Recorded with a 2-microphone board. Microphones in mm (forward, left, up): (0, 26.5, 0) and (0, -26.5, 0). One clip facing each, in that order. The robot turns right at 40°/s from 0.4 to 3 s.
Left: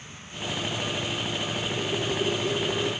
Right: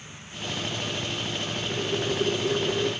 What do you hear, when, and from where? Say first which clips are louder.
1.7 s boiling: right 3 dB; 105° right, 0.8 m; by 2.9 s 60° right, 0.8 m